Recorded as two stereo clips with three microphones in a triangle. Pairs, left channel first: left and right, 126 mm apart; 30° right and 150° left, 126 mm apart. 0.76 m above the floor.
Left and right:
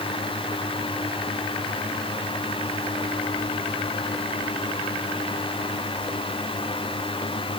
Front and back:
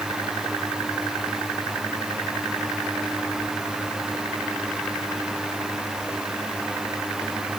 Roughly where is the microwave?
I don't hear a microwave.